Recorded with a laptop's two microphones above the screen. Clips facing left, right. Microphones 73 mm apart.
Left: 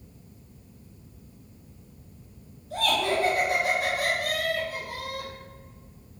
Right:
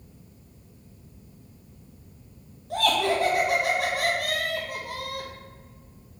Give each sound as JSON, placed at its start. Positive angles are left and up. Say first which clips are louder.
{"t": 2.7, "sound": "laughter", "louder": "right 2 dB", "side_deg": -75, "distance_m": 1.2}